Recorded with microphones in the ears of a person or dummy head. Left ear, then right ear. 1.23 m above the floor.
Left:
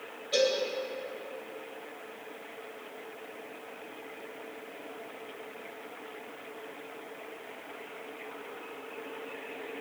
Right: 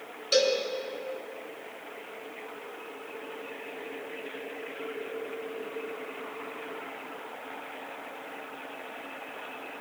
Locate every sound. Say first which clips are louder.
0.3 s a cowbell: right 3 dB; 75° right (ahead or behind), 3.5 m